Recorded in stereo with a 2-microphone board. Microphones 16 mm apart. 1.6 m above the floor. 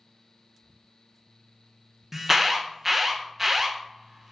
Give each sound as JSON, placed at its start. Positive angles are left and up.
{"t": 2.1, "sound": "an alarm", "side_deg": -20, "distance_m": 0.6}